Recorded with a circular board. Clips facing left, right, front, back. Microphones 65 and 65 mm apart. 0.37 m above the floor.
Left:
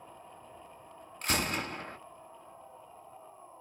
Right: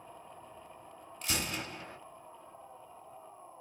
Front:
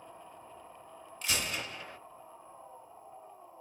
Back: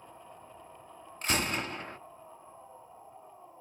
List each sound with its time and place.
1.2 s a gunshot: 135° left, 1.2 m